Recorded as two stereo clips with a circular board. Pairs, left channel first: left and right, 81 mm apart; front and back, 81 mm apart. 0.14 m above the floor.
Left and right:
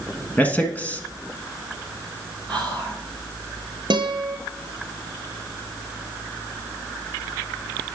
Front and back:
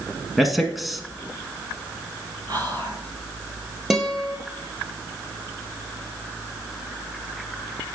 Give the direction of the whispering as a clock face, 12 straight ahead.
6 o'clock.